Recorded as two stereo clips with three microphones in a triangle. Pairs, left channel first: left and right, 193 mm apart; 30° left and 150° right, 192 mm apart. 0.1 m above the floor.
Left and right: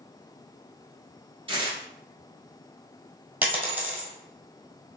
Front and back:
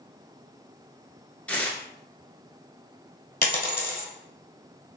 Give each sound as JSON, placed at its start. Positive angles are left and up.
{"t": 1.5, "sound": "tearing paper", "azimuth_deg": -50, "distance_m": 0.8}
{"t": 3.4, "sound": "a dropped coin", "azimuth_deg": -10, "distance_m": 1.0}